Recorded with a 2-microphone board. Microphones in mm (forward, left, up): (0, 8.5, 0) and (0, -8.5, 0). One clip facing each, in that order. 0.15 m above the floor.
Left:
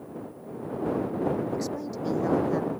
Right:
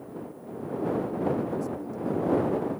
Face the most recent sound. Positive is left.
turn(degrees=70)  # may be behind; listen again after turning